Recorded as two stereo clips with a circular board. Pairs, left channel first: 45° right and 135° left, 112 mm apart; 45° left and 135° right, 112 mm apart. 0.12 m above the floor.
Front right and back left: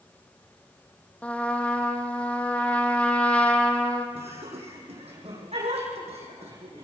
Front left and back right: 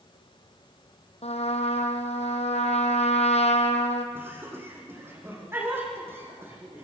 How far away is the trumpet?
About 2.0 m.